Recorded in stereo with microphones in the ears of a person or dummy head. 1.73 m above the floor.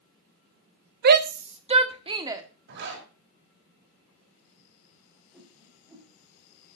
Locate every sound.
1.0 s a shout: 55° right (ahead or behind), 0.9 m; by 2.4 s 20° right (ahead or behind), 1.6 m
2.7 s a zipper: 60° right (ahead or behind), 6.5 m
5.3 s a whoosh: 10° right (ahead or behind), 6.5 m